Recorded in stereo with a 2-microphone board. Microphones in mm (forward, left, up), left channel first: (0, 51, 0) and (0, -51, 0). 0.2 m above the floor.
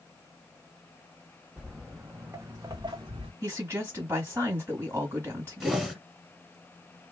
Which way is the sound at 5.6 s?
5° right (ahead or behind).